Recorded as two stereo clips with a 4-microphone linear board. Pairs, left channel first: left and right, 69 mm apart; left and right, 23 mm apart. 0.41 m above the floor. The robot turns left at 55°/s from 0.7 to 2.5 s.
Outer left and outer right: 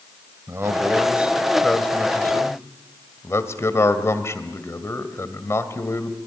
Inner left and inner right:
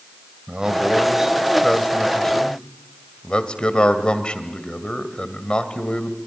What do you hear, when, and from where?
0.5 s a man speaking: 135° right, 1.9 m; by 6.2 s 130° left, 1.9 m